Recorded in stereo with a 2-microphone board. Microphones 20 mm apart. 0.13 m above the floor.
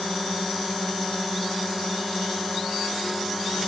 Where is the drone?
Centre (ahead or behind).